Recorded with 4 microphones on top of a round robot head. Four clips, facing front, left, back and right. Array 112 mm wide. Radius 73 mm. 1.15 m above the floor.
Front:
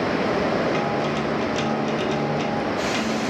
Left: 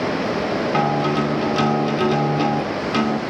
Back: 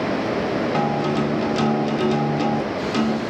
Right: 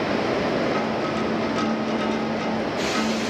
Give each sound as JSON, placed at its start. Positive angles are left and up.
{"t": 0.7, "sound": "a guitar", "azimuth_deg": 115, "distance_m": 2.5}